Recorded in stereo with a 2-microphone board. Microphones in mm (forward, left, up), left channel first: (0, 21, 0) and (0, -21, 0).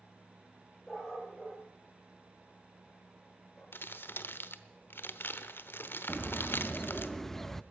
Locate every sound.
0.9 s a dog barking: 10° left (ahead or behind), 7.5 m
3.7 s crumpling: 60° left (ahead or behind), 0.8 m
6.1 s a bird: 5° left (ahead or behind), 0.5 m